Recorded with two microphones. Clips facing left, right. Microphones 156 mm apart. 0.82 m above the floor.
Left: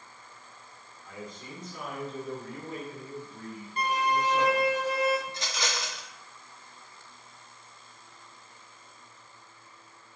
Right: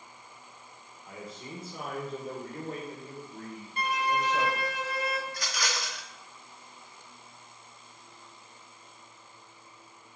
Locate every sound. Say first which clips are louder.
1.1 s a man speaking: even; 25° right (ahead or behind), 1.7 m; by 4.8 s 75° right (ahead or behind), 3.5 m
3.8 s a violin: left 2 dB; 45° left (ahead or behind), 2.5 m
5.3 s a rattle: left 1 dB; 25° left (ahead or behind), 1.0 m